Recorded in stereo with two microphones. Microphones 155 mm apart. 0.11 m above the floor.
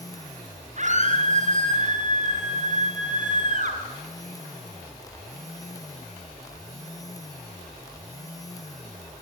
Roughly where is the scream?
Right.